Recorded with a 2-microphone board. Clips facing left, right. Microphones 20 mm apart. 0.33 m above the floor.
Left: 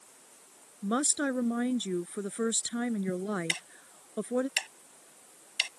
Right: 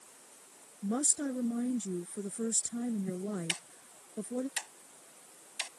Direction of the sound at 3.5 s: 60° left (ahead or behind).